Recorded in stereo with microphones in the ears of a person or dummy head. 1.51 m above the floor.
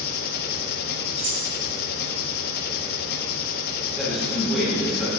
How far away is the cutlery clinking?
About 2 m.